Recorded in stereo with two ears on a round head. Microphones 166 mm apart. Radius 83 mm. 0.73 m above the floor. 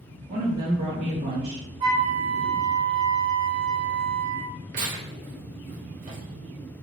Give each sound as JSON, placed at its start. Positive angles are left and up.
{"t": 0.3, "sound": "a woman speaking", "side_deg": -30, "distance_m": 1.5}
{"t": 1.8, "sound": "a flute", "side_deg": -25, "distance_m": 1.6}
{"t": 4.7, "sound": "tearing paper", "side_deg": -45, "distance_m": 1.0}